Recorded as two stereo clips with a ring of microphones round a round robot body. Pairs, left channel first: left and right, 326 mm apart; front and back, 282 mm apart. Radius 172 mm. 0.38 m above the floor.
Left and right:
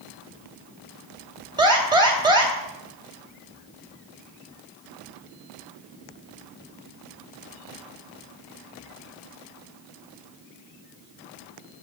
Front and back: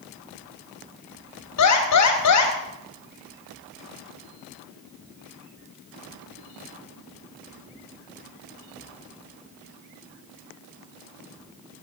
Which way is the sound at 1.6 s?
15° right.